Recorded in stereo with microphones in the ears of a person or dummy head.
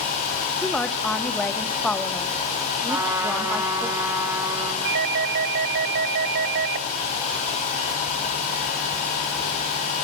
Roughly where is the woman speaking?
Centre.